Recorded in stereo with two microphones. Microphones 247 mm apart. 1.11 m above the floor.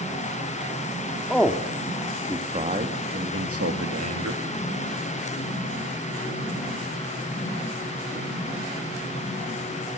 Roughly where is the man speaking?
Centre.